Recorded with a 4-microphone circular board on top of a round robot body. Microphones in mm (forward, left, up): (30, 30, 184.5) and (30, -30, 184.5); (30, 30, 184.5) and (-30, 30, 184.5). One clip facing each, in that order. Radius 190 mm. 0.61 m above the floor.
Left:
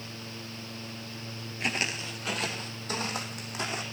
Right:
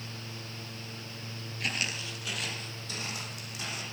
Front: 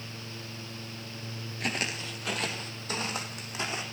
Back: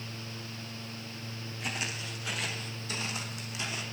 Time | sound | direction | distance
1.6 | footsteps | 25° left | 0.9 m